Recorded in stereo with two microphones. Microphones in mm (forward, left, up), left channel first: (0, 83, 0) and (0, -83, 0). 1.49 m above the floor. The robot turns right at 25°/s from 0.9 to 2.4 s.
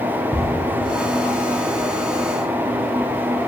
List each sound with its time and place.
0.3 s ticking: centre (ahead or behind), 0.9 m